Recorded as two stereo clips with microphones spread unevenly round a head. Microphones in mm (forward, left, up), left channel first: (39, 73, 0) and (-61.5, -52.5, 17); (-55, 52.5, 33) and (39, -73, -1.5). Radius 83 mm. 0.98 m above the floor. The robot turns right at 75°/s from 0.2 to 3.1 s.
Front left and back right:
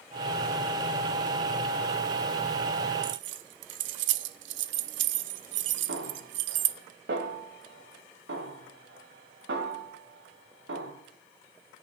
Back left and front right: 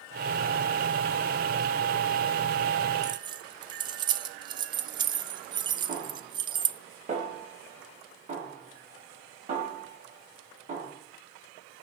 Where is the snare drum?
100° right, 3.5 m.